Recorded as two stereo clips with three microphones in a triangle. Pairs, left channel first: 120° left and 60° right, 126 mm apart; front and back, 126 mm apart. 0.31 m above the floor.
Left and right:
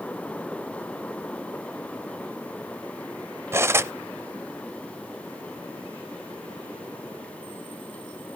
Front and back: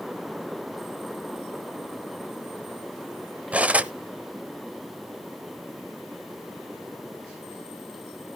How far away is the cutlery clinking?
About 0.5 m.